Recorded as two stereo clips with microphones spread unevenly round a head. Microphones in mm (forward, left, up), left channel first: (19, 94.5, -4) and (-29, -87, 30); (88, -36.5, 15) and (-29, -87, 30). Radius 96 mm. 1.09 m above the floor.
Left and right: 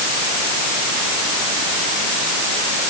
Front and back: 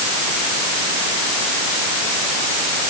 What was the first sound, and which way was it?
Only background noise.